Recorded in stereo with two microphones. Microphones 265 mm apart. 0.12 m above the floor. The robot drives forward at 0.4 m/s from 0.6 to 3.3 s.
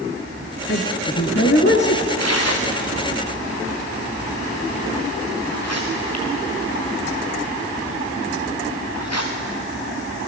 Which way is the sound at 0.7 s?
45° left (ahead or behind).